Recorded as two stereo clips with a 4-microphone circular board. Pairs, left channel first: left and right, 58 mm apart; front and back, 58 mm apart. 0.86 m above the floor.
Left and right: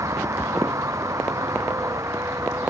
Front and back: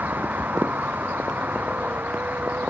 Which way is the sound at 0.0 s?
120° right.